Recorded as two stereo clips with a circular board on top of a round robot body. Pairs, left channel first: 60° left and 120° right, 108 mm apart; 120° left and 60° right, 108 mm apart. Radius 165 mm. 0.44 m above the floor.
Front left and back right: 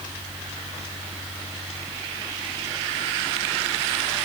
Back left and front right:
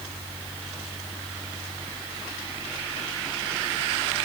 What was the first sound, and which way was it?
Only background noise.